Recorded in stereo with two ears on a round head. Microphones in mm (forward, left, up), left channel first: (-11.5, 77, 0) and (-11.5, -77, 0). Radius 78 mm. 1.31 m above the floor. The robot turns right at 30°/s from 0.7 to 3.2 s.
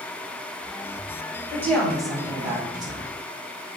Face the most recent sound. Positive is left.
turn(degrees=-145)